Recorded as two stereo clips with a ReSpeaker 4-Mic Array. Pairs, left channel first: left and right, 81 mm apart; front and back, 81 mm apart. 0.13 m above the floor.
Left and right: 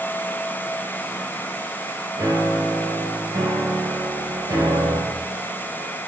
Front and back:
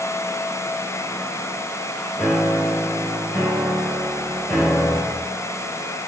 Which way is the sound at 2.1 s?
60° right.